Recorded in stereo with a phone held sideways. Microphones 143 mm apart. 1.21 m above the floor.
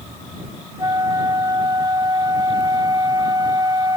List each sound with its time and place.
0.8 s a flute: 30° right (ahead or behind)